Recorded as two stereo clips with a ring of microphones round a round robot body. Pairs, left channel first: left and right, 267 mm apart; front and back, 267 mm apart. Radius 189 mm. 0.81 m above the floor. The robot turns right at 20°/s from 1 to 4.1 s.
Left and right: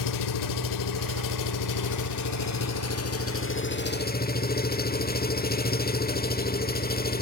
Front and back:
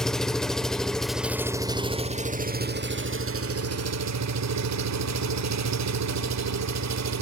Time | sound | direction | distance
0.0 | an engine running | 90° left | 1.4 m